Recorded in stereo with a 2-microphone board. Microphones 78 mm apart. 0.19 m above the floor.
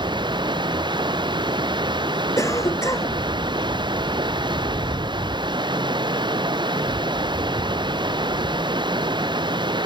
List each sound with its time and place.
0.0 s running water: 80° right
2.4 s a cough: 40° left (ahead or behind)